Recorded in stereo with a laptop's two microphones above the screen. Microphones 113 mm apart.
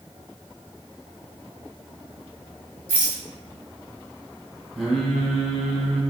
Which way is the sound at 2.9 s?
15° right (ahead or behind).